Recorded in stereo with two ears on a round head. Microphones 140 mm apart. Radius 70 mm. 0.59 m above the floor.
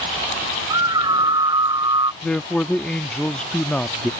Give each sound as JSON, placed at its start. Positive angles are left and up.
{"t": 0.7, "sound": "a scream", "side_deg": -30}
{"t": 2.2, "sound": "a man speaking", "side_deg": 5}